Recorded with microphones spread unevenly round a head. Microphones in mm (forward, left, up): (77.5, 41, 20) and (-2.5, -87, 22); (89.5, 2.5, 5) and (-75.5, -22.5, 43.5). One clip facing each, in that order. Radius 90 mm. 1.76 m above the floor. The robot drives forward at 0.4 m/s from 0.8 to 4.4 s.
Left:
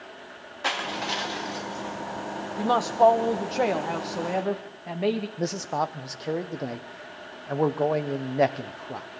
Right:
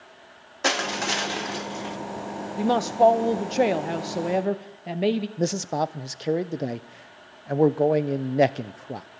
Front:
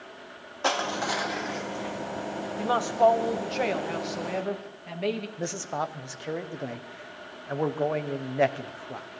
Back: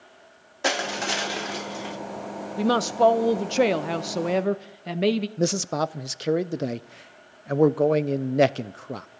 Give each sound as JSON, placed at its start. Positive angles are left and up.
{"t": 0.6, "sound": "crushing", "azimuth_deg": -130, "distance_m": 0.6}
{"t": 2.6, "sound": "a woman speaking", "azimuth_deg": 165, "distance_m": 1.0}
{"t": 5.4, "sound": "a man speaking", "azimuth_deg": 175, "distance_m": 0.7}